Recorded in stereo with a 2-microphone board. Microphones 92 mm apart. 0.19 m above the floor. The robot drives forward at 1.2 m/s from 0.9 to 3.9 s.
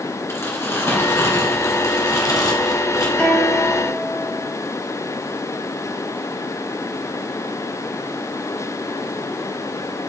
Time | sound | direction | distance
0.3 | crumpling | 30° left (ahead or behind) | 2.5 m
3.2 | a guitar | 15° left (ahead or behind) | 2.5 m